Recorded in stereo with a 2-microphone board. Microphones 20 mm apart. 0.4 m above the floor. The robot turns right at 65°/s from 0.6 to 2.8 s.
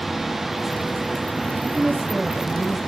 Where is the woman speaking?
80° right, 9.5 m; by 2.8 s 5° right, 9.5 m.